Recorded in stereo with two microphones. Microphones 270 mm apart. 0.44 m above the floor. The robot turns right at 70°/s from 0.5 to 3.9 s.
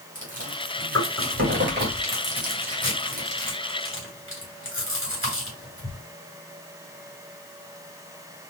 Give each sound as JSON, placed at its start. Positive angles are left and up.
{"t": 0.1, "sound": "chewing", "side_deg": -30, "distance_m": 1.7}